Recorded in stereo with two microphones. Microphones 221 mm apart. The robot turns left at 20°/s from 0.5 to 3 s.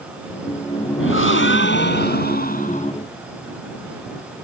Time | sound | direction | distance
1.0 | a gasp | 75° left | ?